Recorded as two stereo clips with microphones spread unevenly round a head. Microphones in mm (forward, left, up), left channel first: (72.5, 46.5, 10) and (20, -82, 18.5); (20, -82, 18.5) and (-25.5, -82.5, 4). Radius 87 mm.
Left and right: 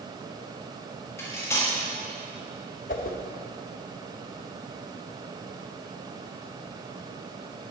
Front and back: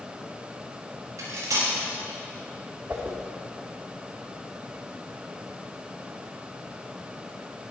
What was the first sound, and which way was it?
Cutlery clinking, 145° left.